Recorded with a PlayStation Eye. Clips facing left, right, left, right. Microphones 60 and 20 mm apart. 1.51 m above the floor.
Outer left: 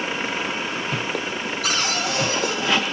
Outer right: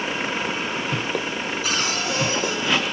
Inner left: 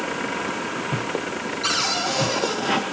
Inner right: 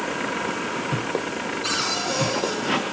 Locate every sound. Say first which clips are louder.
1.6 s a cupboard door: outer left 2 dB, inner left 3 dB; 80° left, 1.6 m